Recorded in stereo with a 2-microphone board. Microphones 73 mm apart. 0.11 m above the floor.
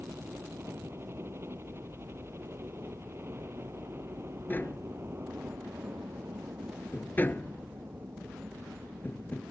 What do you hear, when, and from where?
0.0 s a helicopter: 35° right (ahead or behind)
4.5 s tapping: 25° left (ahead or behind)